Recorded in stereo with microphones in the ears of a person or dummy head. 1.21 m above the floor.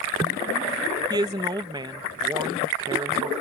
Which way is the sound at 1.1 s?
15° right (ahead or behind).